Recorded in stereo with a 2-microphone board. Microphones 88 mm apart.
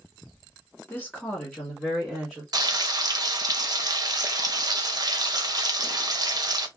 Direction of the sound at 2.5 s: 50° right (ahead or behind).